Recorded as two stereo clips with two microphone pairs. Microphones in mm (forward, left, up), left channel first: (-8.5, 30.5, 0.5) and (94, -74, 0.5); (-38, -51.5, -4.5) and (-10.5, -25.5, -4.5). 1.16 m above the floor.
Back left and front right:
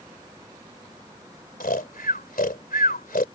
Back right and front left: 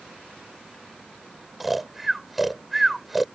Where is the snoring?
130° left.